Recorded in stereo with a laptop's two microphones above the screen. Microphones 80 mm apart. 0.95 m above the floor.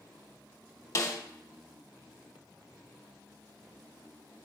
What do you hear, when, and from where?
0.9 s a snare drum: 40° left (ahead or behind), 0.7 m